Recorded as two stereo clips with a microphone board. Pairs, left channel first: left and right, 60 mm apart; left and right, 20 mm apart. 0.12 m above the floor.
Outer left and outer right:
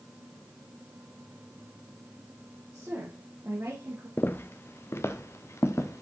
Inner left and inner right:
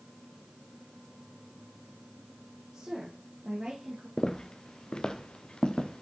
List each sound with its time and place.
2.7 s a woman speaking: 35° right (ahead or behind), 5.5 m
4.2 s footsteps: 35° left (ahead or behind), 1.0 m; by 6.0 s 50° left (ahead or behind), 1.9 m